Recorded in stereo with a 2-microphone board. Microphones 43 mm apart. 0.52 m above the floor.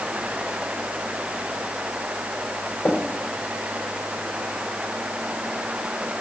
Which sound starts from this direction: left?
Tapping, at 2.9 s.